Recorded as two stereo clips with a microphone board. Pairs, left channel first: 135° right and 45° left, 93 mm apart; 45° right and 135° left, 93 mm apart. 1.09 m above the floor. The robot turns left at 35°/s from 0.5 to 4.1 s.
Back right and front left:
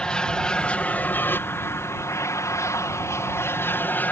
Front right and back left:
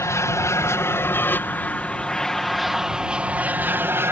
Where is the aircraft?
65° right; by 4.1 s 170° left.